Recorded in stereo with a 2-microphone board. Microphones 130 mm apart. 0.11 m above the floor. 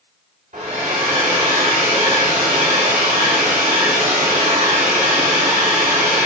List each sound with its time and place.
0.5 s a hair dryer: 60° right (ahead or behind), 3 m